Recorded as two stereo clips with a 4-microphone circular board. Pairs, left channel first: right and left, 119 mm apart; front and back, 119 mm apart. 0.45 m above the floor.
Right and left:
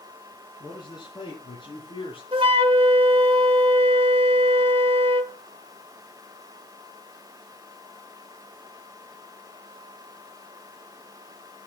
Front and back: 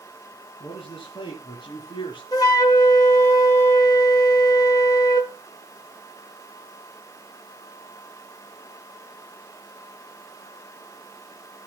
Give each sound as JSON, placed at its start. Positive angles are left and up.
{"t": 0.6, "sound": "a man speaking", "azimuth_deg": -40, "distance_m": 4.0}
{"t": 2.3, "sound": "a flute", "azimuth_deg": 55, "distance_m": 1.2}